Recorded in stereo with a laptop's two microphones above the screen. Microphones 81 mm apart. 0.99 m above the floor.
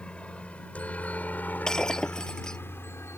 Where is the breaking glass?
5° left (ahead or behind).